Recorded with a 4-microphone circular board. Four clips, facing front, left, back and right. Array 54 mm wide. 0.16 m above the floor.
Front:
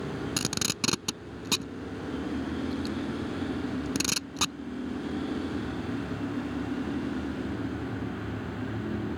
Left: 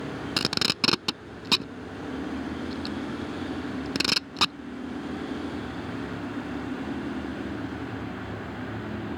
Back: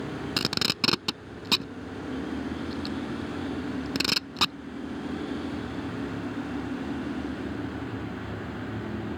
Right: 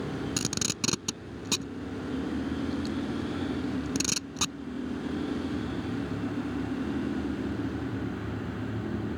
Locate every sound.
0.4 s tape being pulled: 115° left